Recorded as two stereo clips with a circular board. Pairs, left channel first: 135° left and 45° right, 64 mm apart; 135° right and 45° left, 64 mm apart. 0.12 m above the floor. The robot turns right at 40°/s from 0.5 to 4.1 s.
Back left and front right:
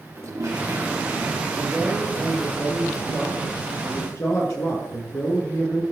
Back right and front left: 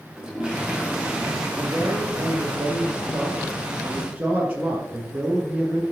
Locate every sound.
0.1 s a toilet flushing: 30° right, 2.5 m; by 2.6 s 50° left, 2.5 m
1.6 s a man speaking: 5° left, 2.5 m; by 5.8 s 105° left, 2.5 m